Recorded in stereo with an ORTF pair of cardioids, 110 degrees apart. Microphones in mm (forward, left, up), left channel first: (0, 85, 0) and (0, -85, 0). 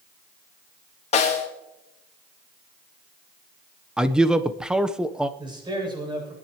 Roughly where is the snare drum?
Ahead left.